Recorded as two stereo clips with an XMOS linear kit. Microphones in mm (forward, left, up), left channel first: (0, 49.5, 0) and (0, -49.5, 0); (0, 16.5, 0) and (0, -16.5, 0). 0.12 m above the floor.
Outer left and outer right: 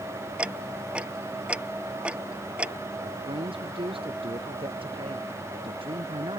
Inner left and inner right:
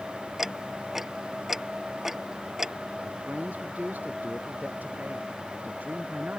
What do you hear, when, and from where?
0.4 s ticking: 10° right (ahead or behind)
3.0 s a man speaking: 65° right (ahead or behind)